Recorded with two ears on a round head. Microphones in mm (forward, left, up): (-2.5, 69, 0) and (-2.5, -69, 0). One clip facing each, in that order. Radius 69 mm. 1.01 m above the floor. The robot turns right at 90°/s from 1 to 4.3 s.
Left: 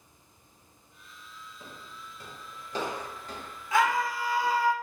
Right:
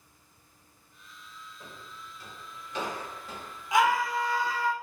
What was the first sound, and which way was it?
Footsteps, 5° left (ahead or behind).